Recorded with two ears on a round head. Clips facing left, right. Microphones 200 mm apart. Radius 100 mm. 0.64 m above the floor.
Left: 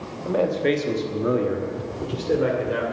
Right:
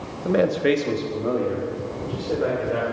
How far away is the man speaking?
About 1.1 m.